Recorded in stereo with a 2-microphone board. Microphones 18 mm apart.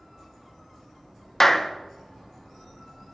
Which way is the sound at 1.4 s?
15° left (ahead or behind).